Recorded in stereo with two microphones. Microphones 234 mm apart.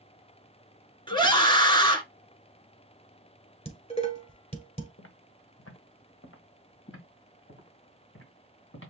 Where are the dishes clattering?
25° left (ahead or behind), 1.3 m.